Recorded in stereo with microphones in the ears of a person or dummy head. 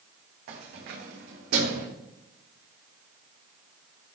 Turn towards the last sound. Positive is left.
turn(degrees=-70)  # may be behind; listen again after turning